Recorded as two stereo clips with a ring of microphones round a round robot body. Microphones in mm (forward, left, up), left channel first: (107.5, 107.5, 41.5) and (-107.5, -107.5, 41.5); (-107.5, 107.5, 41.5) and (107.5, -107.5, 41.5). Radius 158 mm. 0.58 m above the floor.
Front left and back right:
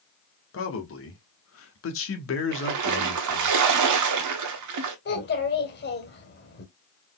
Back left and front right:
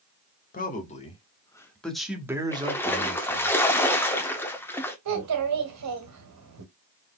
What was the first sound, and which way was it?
A man speaking, 80° left.